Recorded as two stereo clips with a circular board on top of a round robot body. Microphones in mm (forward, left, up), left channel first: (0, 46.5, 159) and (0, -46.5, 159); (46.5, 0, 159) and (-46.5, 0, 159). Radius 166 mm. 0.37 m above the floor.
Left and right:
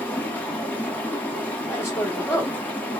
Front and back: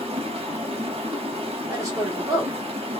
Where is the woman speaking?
140° left, 1.7 m.